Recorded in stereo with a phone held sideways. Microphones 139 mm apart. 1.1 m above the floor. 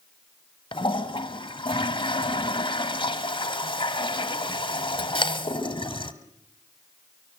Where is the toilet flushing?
35° left (ahead or behind), 1.4 m.